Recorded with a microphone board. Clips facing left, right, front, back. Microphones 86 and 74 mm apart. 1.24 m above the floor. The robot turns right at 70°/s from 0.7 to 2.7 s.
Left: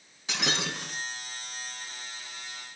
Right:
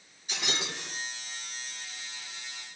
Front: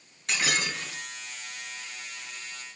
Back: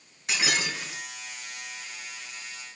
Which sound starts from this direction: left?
Breaking glass, at 0.3 s.